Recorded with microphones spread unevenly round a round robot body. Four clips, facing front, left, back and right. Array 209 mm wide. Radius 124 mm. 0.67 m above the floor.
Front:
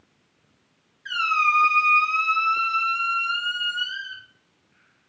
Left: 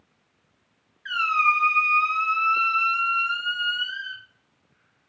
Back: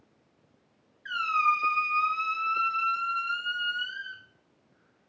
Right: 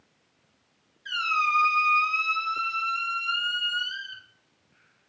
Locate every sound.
1.1 s a squeak: 75° left, 1.0 m